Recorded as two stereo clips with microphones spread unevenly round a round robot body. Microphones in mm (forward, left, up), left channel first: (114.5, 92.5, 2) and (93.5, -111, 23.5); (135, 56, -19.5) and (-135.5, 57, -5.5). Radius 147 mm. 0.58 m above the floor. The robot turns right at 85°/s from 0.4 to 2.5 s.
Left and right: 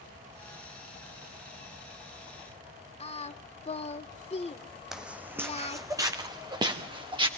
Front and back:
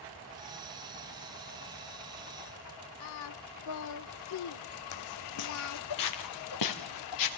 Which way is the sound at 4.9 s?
10° right.